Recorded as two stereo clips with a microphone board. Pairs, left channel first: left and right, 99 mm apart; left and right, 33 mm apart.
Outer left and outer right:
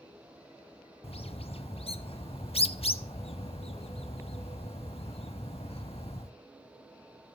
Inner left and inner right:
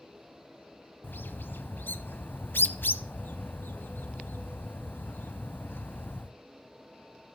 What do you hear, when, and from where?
1.0 s a bird: 80° left, 0.7 m